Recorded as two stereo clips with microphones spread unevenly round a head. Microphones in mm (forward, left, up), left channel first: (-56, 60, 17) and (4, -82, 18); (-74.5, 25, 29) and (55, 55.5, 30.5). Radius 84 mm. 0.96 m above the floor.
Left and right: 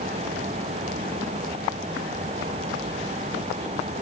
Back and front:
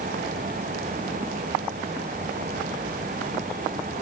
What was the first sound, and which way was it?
Only background noise.